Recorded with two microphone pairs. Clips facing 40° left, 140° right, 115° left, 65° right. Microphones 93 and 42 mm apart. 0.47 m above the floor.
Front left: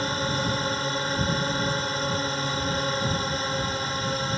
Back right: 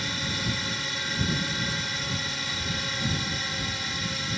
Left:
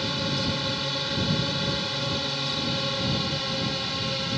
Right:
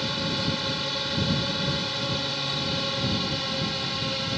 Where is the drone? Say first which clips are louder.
Front left 6 dB, even; 25° left.